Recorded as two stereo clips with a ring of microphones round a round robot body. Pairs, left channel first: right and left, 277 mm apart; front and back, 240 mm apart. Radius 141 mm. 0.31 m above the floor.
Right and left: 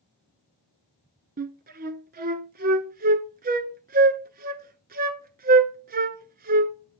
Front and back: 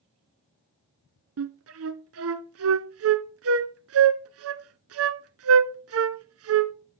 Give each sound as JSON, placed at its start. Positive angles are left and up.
{"t": 1.4, "sound": "a flute", "azimuth_deg": 150, "distance_m": 0.8}